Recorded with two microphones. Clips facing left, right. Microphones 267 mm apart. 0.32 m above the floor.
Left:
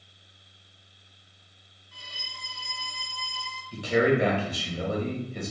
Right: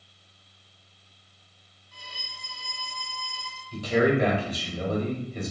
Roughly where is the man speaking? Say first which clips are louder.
Even; centre.